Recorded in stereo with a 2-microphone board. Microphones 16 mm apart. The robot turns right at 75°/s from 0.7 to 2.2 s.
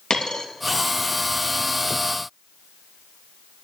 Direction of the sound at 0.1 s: 75° left (ahead or behind).